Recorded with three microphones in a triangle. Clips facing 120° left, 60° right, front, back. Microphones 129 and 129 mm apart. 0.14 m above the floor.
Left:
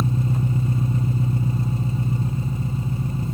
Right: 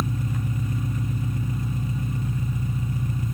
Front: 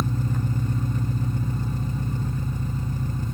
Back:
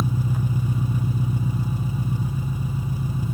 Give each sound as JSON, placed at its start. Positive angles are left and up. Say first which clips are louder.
{"t": 0.0, "sound": "an engine running", "louder": "left 5 dB, back 2 dB", "azimuth_deg": 110, "distance_m": 1.4}